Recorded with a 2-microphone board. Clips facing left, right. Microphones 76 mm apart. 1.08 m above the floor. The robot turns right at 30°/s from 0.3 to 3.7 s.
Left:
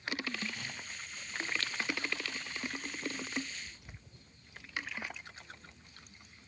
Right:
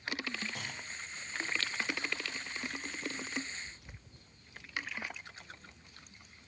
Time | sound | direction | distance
0.6 | a clunk | 80° right | 2.5 m